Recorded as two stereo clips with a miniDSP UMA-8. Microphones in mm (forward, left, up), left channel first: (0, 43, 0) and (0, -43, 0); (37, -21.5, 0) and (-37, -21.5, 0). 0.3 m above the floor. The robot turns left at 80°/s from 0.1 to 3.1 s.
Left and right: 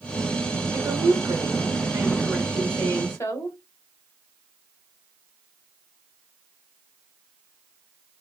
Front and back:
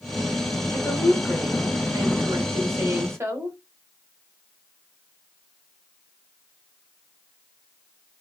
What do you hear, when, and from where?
0.7 s a woman speaking: 35° right, 1.3 m; by 3.6 s 135° left, 1.3 m